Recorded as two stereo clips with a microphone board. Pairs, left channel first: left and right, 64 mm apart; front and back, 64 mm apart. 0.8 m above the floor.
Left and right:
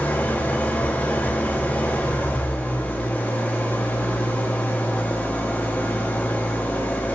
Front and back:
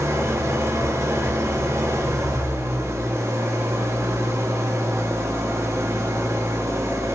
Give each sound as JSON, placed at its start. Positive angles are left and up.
{"t": 0.0, "sound": "an engine running", "azimuth_deg": 150, "distance_m": 1.3}